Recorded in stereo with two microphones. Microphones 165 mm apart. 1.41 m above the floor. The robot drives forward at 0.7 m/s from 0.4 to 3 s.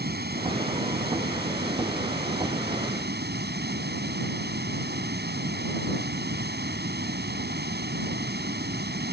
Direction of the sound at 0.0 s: 75° right (ahead or behind).